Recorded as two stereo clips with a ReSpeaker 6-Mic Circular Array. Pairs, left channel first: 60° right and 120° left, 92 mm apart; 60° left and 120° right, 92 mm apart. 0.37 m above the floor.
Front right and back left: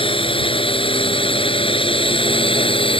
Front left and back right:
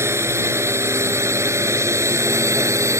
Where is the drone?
60° right.